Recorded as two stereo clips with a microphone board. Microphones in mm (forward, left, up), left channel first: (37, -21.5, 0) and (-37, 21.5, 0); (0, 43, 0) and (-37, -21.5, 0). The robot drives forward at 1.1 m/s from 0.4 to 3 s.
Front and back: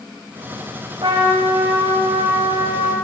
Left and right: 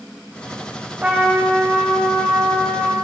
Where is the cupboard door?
I don't hear a cupboard door.